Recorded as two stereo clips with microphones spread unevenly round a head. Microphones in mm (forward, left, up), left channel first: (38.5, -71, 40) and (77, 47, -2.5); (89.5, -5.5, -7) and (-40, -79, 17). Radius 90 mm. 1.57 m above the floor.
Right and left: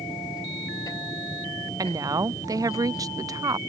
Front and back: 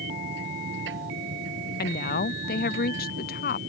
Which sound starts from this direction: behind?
A machine running, at 0.0 s.